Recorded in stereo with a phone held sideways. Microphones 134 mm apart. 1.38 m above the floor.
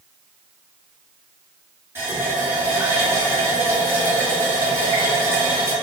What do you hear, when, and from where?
1.9 s a running tap: 20° right (ahead or behind), 1.8 m